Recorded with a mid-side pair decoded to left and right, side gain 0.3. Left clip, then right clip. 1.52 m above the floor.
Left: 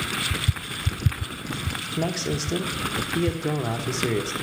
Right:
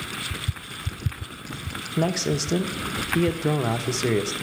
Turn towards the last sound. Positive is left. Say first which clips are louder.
# right 4 dB
turn(degrees=-30)